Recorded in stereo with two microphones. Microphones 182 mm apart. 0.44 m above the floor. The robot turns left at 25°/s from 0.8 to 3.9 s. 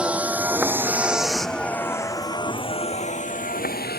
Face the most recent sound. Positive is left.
turn(degrees=55)  # may be behind; listen again after turning